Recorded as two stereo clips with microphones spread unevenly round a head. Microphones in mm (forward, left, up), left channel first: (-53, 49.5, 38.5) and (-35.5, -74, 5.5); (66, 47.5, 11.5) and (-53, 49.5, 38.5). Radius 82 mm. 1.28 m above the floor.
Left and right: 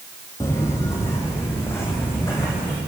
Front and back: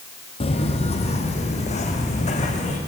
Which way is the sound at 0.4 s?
40° left.